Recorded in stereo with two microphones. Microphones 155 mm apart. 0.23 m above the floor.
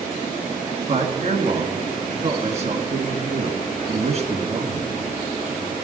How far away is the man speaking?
About 2.5 m.